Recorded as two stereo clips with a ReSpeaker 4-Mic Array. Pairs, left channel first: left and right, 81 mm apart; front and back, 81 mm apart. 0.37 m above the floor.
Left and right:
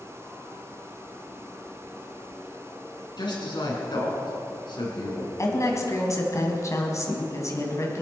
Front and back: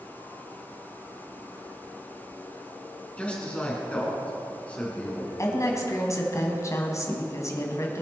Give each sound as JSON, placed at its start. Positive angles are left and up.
{"t": 3.2, "sound": "a man speaking", "azimuth_deg": 75, "distance_m": 4.0}
{"t": 5.4, "sound": "a woman speaking", "azimuth_deg": 45, "distance_m": 2.5}